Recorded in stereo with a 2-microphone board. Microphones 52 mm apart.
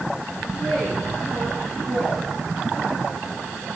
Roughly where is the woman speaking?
Centre.